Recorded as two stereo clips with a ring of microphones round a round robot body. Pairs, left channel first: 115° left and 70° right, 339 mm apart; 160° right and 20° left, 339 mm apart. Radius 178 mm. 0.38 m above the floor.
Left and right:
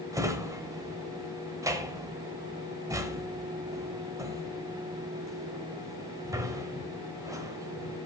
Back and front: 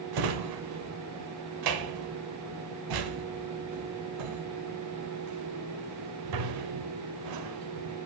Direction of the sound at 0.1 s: 15° left.